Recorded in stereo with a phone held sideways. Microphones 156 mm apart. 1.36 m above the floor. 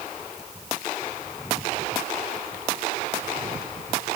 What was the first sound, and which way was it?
Only background noise.